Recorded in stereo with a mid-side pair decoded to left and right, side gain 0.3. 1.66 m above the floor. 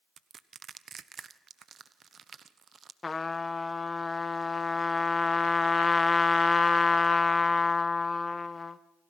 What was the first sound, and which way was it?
Crushing, 65° right.